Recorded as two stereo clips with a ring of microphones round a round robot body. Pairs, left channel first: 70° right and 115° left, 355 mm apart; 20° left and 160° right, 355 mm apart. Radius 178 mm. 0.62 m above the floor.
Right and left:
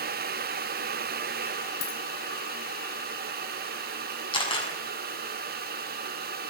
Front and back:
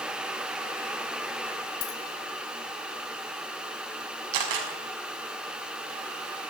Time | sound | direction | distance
1.8 | a dropped coin | 5° right | 2.5 m
4.3 | a camera shutter | 145° right | 6 m